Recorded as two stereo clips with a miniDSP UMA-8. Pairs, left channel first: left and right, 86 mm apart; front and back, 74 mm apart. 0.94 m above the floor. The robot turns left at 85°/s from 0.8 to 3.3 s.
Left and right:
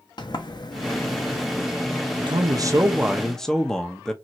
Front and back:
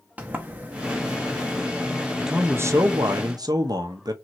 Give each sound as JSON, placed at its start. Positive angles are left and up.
{"t": 0.2, "sound": "a sliding door", "azimuth_deg": 115, "distance_m": 0.6}
{"t": 2.2, "sound": "a man speaking", "azimuth_deg": -95, "distance_m": 0.6}